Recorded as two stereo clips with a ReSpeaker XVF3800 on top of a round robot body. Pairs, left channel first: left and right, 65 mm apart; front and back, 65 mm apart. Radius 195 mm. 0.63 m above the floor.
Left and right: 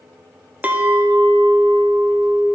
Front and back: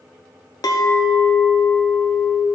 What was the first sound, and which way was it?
A clink, 25° right.